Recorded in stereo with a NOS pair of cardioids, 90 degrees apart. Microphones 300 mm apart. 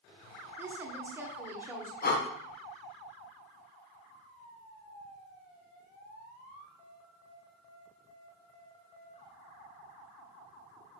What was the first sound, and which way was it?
A woman speaking, 5° right.